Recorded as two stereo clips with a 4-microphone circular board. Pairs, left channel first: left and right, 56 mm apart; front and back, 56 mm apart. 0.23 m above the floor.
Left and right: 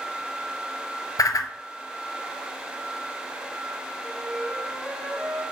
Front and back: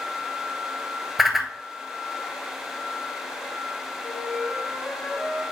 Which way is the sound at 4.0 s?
45° left.